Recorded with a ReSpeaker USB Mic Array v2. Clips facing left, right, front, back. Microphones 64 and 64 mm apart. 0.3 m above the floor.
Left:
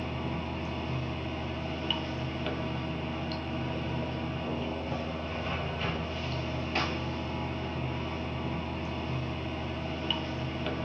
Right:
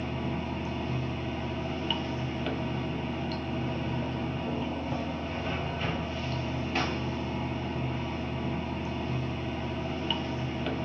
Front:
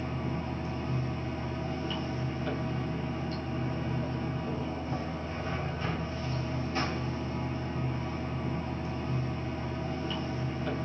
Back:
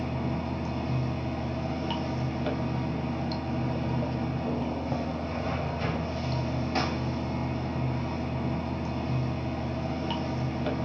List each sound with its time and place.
0.0 s running water: 175° right, 0.8 m